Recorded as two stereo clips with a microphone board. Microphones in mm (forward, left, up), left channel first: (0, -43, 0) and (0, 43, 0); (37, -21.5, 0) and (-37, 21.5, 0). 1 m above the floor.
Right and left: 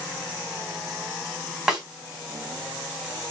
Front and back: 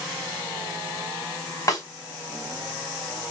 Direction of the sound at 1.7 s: 5° left.